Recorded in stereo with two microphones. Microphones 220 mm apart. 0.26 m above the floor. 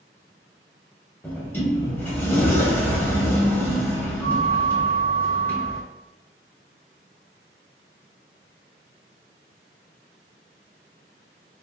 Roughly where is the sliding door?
Centre.